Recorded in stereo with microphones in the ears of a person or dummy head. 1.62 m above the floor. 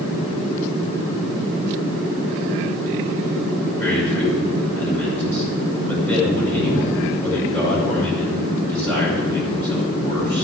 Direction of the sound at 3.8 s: 10° left (ahead or behind).